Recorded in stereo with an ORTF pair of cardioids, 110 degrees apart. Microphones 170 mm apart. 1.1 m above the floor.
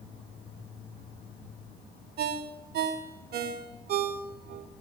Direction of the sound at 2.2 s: 65° right.